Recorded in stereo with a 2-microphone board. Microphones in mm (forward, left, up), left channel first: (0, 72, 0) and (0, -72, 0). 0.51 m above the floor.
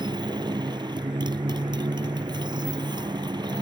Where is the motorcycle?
30° right (ahead or behind).